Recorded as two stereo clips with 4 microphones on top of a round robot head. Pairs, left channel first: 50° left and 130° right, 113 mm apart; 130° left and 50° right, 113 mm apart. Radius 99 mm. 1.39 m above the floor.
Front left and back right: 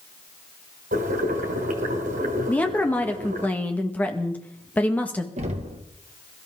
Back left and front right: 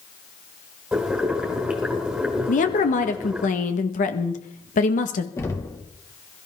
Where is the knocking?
160° right, 1.8 m.